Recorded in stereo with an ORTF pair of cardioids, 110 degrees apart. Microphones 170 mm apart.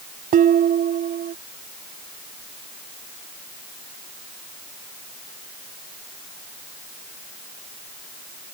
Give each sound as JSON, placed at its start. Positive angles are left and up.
{"t": 0.3, "sound": "dishes clattering", "azimuth_deg": -55}